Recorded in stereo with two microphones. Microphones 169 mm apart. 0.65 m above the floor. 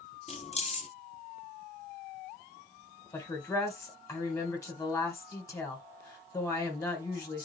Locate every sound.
0.3 s keys jangling: 40° left (ahead or behind), 0.9 m
3.1 s a woman speaking: 20° left (ahead or behind), 2.5 m